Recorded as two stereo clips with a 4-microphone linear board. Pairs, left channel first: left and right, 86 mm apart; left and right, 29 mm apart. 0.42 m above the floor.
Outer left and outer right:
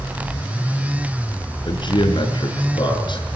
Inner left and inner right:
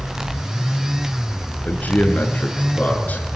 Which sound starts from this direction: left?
A man speaking, at 1.6 s.